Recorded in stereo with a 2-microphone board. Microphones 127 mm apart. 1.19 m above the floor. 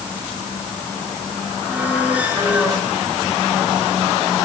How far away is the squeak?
About 9.5 m.